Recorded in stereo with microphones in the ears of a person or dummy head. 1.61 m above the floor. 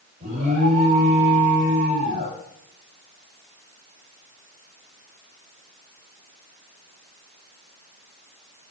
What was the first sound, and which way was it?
An alarm, 40° right (ahead or behind).